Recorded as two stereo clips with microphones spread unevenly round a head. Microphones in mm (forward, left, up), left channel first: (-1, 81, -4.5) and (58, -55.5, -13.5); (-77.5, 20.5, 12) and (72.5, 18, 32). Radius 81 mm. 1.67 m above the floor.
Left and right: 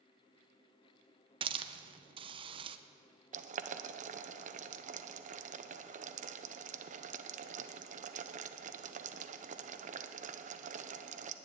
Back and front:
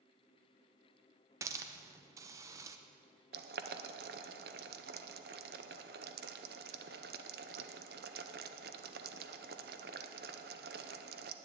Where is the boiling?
30° right, 0.8 m.